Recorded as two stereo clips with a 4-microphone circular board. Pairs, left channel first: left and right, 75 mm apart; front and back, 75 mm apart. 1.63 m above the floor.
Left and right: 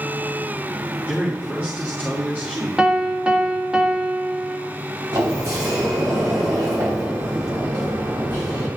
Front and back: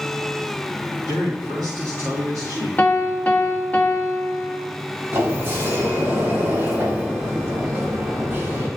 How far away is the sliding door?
About 3.5 m.